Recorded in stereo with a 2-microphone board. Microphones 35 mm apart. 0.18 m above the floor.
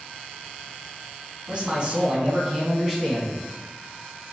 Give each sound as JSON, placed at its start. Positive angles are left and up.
{"t": 1.5, "sound": "a man speaking", "side_deg": -35, "distance_m": 1.2}